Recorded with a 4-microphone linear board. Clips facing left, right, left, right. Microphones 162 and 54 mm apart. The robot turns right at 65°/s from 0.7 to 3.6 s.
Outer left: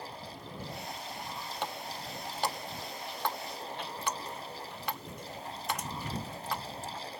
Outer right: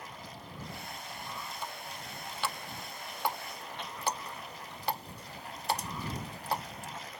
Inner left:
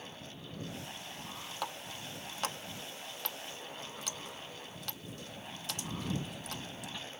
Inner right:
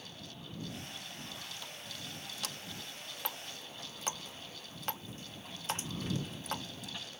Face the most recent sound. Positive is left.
turn(degrees=-35)  # may be behind; listen again after turning